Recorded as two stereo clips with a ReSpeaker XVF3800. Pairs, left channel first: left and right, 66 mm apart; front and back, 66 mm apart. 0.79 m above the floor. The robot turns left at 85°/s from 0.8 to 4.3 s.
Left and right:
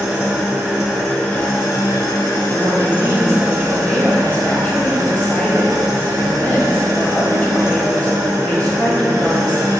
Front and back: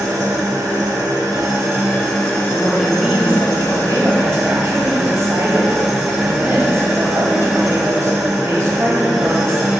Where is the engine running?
160° right, 0.9 m; by 9.8 s 95° right, 0.9 m.